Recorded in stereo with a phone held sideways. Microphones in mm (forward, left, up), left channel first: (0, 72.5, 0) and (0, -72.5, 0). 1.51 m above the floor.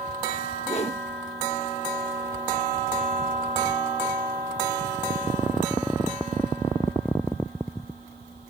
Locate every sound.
0.7 s a whoosh: 50° left (ahead or behind)